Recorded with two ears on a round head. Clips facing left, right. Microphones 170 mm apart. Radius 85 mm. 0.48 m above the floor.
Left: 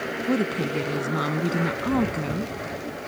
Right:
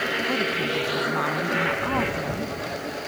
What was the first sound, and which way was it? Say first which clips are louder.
A woman speaking: left 5 dB; 35° left (ahead or behind).